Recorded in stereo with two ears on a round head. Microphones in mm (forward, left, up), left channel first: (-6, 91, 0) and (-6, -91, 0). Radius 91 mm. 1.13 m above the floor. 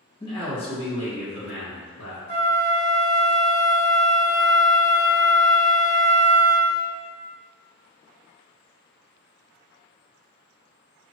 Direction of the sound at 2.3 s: 15° left (ahead or behind).